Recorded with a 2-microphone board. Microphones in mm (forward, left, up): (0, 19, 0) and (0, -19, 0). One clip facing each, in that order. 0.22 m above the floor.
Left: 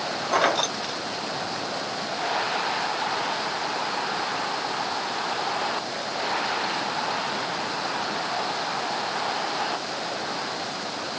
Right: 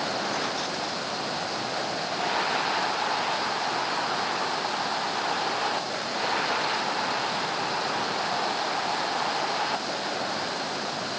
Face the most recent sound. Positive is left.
turn(degrees=85)